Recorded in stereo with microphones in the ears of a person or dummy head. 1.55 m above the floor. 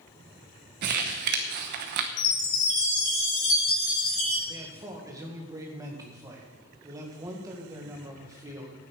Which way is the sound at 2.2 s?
50° left (ahead or behind).